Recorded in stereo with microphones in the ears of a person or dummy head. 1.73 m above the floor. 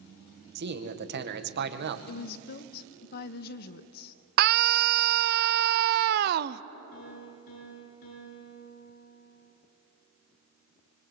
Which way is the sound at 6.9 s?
60° left (ahead or behind).